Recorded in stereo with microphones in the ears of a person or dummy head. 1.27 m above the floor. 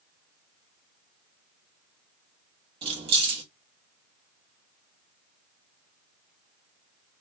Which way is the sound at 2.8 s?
35° right (ahead or behind).